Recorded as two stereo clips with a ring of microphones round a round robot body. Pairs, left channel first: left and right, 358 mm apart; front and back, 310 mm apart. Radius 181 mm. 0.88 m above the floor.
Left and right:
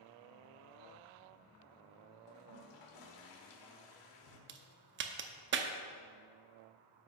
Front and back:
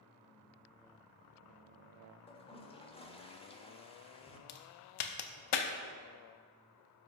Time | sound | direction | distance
2.3 | a toilet flushing | 75° left | 1.3 m
4.5 | a crack | 30° right | 0.6 m